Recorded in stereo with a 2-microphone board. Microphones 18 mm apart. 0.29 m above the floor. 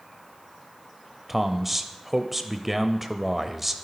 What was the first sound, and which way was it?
A man speaking, 10° right (ahead or behind).